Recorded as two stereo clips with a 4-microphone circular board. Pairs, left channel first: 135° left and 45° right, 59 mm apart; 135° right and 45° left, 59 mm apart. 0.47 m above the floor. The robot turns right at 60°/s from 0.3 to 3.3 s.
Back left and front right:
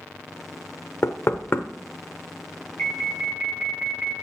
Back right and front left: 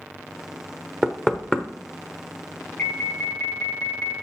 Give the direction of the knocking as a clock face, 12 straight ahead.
8 o'clock.